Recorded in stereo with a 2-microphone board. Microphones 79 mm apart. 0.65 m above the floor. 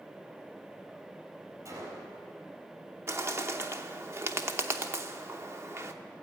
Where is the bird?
30° right (ahead or behind), 0.8 m.